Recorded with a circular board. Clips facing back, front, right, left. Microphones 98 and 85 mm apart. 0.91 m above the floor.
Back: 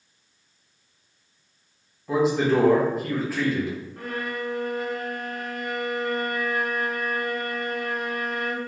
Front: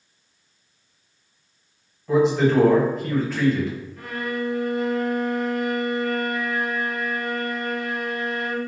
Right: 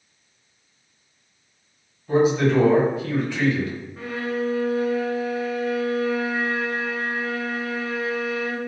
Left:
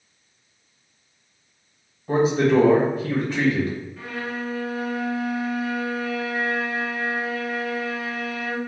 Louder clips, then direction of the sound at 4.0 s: Front 5 dB, right 4 dB; 140° right.